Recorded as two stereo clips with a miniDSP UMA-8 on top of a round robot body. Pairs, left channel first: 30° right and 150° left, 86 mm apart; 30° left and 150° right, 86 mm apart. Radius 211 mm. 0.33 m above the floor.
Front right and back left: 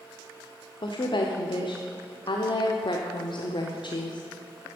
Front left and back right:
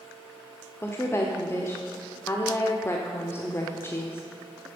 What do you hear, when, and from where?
0.8 s a woman speaking: 30° right, 1.4 m